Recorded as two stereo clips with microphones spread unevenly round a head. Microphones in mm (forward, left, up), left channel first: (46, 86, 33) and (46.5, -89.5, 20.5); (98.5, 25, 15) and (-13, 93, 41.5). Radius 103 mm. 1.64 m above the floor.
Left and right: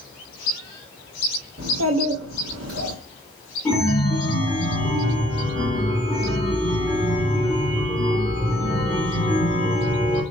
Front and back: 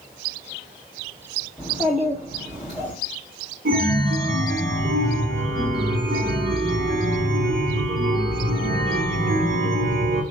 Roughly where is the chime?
Behind.